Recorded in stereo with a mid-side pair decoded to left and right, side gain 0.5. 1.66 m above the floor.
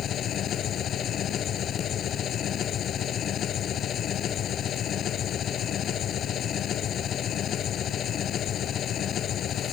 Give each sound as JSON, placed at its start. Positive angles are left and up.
{"t": 0.0, "sound": "an engine running", "azimuth_deg": 55}